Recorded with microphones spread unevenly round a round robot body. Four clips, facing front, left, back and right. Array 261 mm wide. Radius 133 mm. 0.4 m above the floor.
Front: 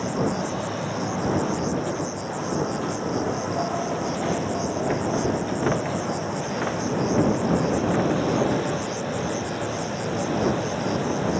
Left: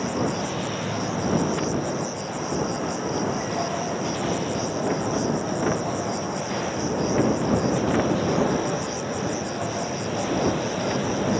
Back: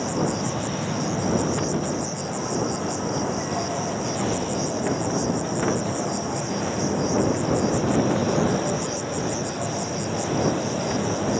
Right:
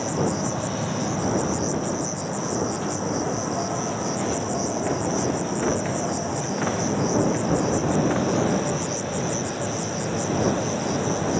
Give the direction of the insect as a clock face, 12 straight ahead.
5 o'clock.